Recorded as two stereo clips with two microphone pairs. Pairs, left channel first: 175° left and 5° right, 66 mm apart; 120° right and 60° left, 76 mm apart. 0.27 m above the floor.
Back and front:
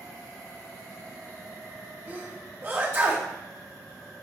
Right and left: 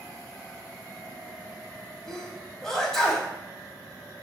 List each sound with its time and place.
2.1 s a sneeze: 40° right, 1.2 m